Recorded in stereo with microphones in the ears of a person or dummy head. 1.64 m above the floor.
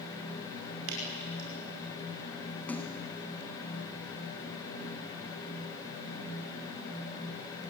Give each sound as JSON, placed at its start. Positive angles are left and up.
{"t": 0.9, "sound": "dripping", "side_deg": -70, "distance_m": 5.5}
{"t": 2.7, "sound": "a splash", "side_deg": 5, "distance_m": 1.7}